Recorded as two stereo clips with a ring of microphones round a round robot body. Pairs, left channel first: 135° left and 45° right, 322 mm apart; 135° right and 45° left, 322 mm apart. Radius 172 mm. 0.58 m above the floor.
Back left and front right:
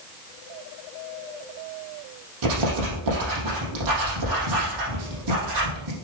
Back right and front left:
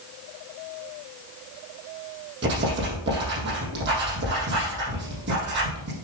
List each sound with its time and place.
2.4 s writing: 15° right, 4.5 m